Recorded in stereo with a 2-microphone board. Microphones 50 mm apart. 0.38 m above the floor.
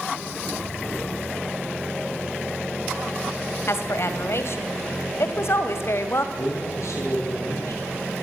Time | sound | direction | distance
3.7 | a woman speaking | 60° left (ahead or behind) | 2.5 m
6.4 | a man speaking | 75° left (ahead or behind) | 8.5 m